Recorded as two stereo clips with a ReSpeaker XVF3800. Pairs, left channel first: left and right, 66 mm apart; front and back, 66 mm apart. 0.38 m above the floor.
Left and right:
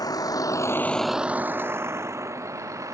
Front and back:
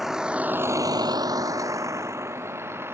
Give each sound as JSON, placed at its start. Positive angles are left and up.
{"t": 0.0, "sound": "a vehicle", "azimuth_deg": 95}